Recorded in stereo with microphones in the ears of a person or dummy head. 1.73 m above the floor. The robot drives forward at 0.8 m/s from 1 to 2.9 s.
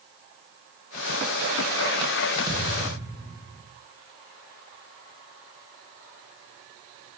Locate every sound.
2.5 s a thud: 25° right (ahead or behind), 3 m; by 3.6 s 20° right (ahead or behind), 3 m